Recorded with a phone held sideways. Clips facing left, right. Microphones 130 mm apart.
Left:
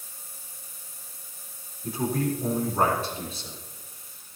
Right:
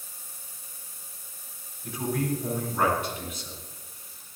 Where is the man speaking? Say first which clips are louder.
Left 2 dB; 35° left (ahead or behind), 3.5 m.